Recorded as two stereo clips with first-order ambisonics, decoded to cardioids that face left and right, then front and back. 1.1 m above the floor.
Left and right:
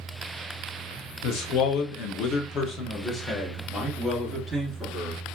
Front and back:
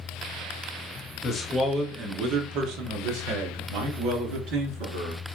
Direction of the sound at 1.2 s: 70° left.